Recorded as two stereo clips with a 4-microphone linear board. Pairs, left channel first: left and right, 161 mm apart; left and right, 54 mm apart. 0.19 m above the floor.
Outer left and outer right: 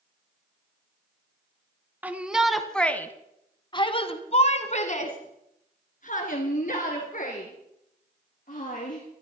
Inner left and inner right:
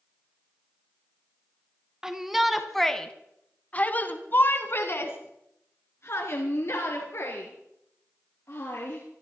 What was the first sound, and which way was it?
A shout, 10° right (ahead or behind).